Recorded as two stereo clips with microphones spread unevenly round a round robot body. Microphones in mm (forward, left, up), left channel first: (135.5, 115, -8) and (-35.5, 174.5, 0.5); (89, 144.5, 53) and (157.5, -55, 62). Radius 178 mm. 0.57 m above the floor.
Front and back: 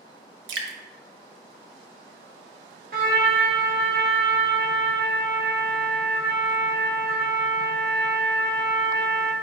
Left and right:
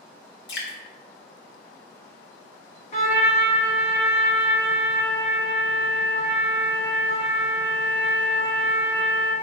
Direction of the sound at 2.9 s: 160° left.